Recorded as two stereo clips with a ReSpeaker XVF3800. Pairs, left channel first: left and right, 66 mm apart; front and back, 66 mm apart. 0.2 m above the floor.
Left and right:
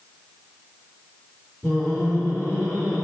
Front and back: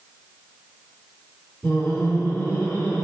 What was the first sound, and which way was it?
Laughter, 50° right.